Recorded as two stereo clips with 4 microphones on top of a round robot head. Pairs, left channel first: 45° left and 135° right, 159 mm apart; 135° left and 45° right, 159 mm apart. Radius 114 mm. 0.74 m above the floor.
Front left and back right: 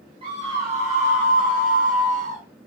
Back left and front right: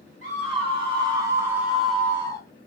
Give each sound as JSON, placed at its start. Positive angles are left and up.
{"t": 0.2, "sound": "a scream", "azimuth_deg": -85, "distance_m": 1.9}